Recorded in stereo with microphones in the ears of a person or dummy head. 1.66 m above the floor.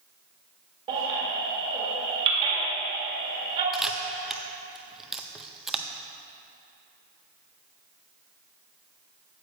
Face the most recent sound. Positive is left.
turn(degrees=-5)  # may be behind; listen again after turning